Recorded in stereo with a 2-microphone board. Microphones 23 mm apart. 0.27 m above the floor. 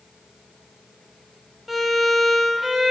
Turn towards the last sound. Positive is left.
turn(degrees=-5)  # may be behind; listen again after turning